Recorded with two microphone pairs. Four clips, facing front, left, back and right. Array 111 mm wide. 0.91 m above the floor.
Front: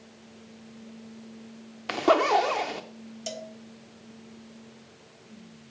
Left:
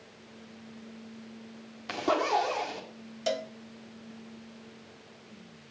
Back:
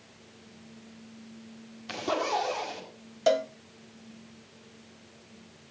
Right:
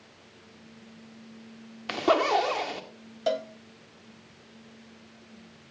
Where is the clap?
No clap in this recording.